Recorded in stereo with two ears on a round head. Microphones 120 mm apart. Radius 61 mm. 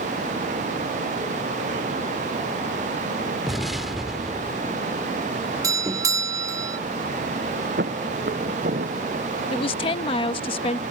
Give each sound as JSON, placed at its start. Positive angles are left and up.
{"t": 3.5, "sound": "an explosion", "side_deg": 0}
{"t": 5.6, "sound": "a doorbell", "side_deg": -25}
{"t": 7.8, "sound": "footsteps", "side_deg": -85}
{"t": 9.5, "sound": "a woman speaking", "side_deg": 40}